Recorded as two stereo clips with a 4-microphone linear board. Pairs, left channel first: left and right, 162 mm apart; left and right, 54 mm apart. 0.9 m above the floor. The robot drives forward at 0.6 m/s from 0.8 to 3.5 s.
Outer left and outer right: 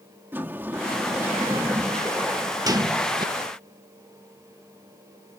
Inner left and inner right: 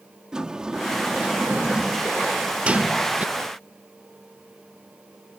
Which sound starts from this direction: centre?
A sliding door, at 0.3 s.